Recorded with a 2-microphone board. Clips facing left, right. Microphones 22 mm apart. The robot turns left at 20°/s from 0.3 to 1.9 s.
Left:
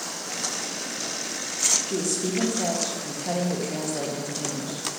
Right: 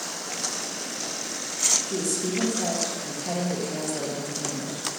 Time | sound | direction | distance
1.9 | a woman speaking | 30° left (ahead or behind) | 0.6 m